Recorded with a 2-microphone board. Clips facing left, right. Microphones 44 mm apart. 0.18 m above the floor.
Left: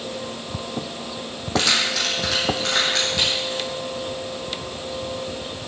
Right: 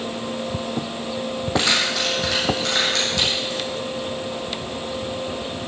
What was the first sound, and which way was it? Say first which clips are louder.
Keys jangling: even; 15° right (ahead or behind).